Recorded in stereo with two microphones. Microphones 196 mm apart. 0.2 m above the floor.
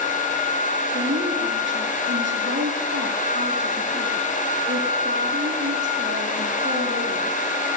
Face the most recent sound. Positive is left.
turn(degrees=-70)  # may be behind; listen again after turning